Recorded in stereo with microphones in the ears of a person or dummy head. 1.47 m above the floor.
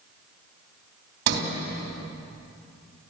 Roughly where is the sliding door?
Right.